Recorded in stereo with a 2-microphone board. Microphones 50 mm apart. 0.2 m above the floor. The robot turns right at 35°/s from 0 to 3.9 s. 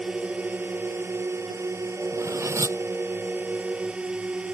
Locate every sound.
0.0 s a drone: 160° right; by 4.5 s 25° right
2.1 s cutlery clinking: 80° right; by 2.8 s 65° right (ahead or behind)